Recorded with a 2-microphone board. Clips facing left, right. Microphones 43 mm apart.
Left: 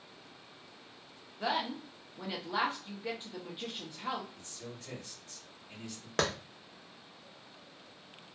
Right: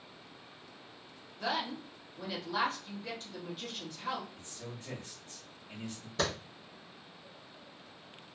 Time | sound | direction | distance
1.4 | a woman speaking | 20° left (ahead or behind) | 0.8 m
4.3 | a man speaking | 35° right (ahead or behind) | 1.3 m
6.2 | a clap | 70° left (ahead or behind) | 0.9 m